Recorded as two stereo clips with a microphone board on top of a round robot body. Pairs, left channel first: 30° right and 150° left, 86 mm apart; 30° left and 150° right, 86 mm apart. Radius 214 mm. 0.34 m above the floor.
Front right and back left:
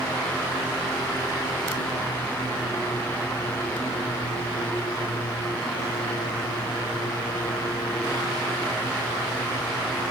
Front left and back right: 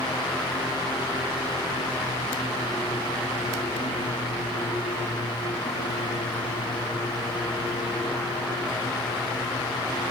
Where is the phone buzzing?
I don't hear a phone buzzing.